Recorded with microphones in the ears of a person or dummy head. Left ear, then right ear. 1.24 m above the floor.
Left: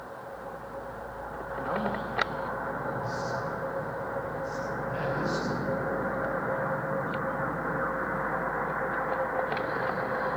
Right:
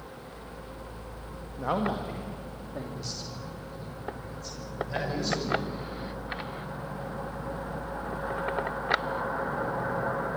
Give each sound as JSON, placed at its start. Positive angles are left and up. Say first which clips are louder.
{"t": 1.6, "sound": "a man speaking", "louder": "right 2 dB", "side_deg": -65, "distance_m": 2.0}